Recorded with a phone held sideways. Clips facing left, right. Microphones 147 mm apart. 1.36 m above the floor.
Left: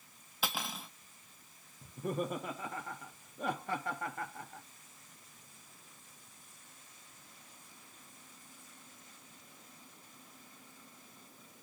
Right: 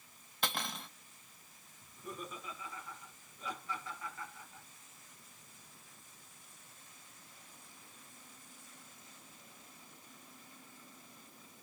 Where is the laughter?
60° left (ahead or behind), 0.6 m.